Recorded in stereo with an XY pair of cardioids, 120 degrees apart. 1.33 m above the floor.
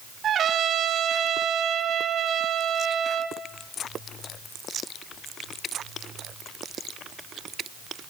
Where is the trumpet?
50° right, 3 m.